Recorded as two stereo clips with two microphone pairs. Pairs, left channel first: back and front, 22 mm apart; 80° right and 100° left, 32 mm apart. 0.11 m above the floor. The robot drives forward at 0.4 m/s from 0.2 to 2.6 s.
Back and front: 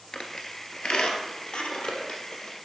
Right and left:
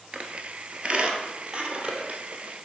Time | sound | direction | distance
0.1 | a squeak | 145° left | 0.7 m